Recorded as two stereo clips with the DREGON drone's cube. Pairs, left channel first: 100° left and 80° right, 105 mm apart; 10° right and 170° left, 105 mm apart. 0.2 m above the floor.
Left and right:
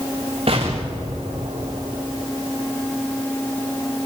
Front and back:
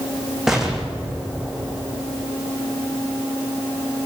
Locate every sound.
0.5 s an explosion: 105° right, 3.5 m